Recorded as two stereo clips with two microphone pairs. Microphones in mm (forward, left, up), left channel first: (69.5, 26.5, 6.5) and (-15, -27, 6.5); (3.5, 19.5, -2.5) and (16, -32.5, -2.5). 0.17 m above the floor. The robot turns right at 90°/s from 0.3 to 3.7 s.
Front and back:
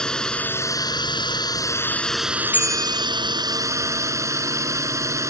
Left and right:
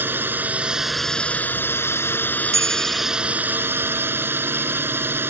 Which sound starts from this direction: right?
A bicycle bell, at 2.5 s.